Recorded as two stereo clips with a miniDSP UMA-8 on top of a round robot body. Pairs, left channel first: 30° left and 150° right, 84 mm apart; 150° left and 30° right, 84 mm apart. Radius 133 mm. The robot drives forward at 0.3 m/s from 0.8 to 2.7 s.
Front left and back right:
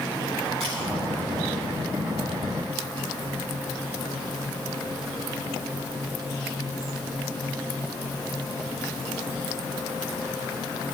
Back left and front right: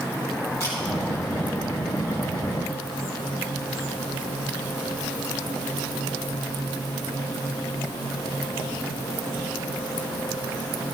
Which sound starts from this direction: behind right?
A camera shutter, at 0.6 s.